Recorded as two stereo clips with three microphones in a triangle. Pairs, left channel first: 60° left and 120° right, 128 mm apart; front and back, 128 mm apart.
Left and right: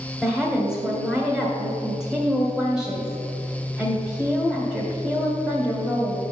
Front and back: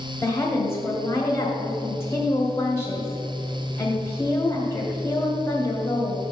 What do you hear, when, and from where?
0.2 s a woman speaking: 40° right, 1.5 m